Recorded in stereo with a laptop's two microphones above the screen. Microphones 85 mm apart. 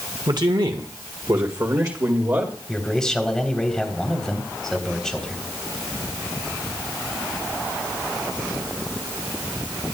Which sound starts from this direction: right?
A man speaking, at 0.3 s.